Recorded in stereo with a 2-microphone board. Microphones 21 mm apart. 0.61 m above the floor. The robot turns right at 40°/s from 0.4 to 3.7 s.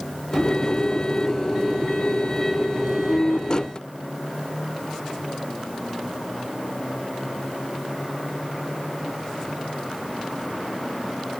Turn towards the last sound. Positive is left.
No sound to turn to.